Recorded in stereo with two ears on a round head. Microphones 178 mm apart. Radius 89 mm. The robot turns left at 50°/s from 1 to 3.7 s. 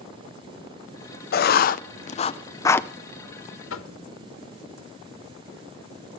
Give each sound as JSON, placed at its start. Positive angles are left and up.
{"t": 1.3, "sound": "writing", "side_deg": 50, "distance_m": 0.5}
{"t": 3.7, "sound": "knocking", "side_deg": 70, "distance_m": 1.3}